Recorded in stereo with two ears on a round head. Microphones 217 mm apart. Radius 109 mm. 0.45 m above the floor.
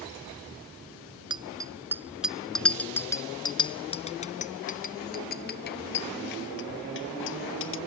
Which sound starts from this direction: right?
A bicycle bell, at 1.3 s.